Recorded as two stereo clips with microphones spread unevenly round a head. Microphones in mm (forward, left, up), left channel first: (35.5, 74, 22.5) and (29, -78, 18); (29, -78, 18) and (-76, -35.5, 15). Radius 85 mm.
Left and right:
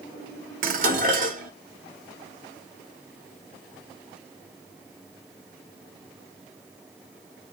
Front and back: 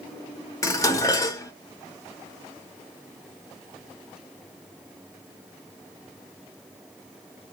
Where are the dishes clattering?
75° right, 1.0 m.